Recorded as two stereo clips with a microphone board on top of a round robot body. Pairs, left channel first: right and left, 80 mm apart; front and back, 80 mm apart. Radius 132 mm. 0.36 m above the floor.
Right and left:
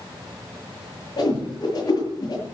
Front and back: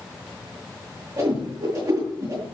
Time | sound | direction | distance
1.2 | a whoosh | 130° right | 8 m